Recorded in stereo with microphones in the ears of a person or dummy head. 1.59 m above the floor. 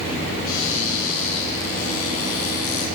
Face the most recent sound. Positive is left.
turn(degrees=50)  # may be behind; listen again after turning